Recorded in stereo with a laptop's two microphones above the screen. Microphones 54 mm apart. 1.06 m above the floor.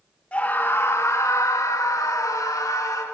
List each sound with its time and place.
0.3 s a scream: 25° left (ahead or behind), 1.2 m; by 3.0 s 80° left, 3.5 m